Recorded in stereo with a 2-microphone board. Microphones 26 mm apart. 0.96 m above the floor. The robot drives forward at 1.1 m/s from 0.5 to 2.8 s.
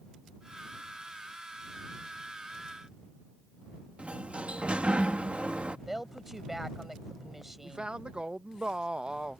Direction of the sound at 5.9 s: 15° right (ahead or behind).